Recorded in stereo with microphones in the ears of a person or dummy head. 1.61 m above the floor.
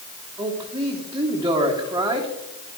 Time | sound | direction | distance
0.4 | a man speaking | 15° right (ahead or behind) | 1.5 m